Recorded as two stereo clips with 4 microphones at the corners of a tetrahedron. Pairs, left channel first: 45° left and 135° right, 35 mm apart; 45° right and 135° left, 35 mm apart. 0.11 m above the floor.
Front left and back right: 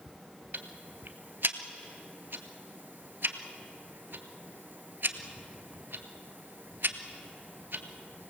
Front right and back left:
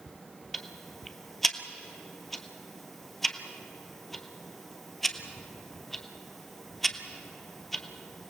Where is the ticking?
130° right, 1.2 m.